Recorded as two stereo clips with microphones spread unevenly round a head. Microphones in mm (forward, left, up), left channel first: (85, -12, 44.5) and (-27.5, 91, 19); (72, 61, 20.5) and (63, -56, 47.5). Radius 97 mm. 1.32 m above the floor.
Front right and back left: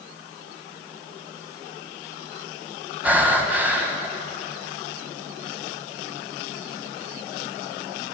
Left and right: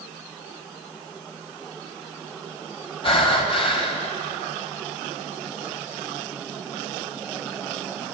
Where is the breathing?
50° left, 1.5 m.